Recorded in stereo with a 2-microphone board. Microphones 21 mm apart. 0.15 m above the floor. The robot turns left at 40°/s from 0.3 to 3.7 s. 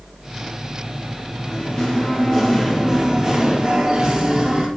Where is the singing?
55° left, 3 m; by 4.7 s 40° right, 3 m.